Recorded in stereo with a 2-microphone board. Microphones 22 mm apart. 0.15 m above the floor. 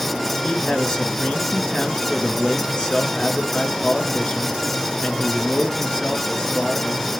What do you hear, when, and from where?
0.4 s a man speaking: 45° left (ahead or behind), 2.5 m